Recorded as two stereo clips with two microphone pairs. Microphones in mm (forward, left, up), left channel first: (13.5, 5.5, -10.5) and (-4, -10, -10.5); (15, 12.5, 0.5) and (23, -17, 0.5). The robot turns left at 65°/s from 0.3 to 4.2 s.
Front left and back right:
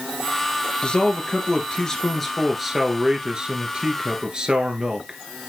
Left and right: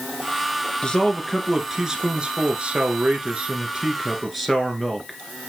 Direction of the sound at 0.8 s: 55° left.